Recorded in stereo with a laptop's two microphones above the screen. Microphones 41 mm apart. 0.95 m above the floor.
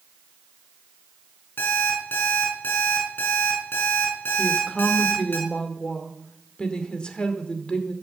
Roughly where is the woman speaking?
Left.